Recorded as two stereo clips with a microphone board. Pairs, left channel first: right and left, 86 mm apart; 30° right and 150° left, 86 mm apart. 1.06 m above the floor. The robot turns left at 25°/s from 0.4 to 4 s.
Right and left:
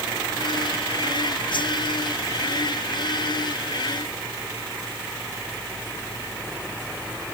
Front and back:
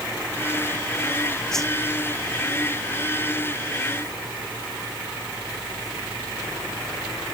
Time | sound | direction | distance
1.5 | a whoosh | 115° right | ?